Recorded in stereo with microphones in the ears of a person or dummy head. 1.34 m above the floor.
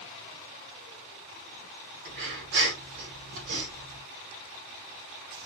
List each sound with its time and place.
2.0 s breathing: 70° right (ahead or behind), 1.6 m